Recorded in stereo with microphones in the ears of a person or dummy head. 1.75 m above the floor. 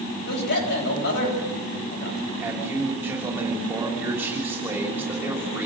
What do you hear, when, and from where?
0.3 s a man speaking: 65° left (ahead or behind), 8.5 m
2.4 s a man speaking: 10° right (ahead or behind), 5.5 m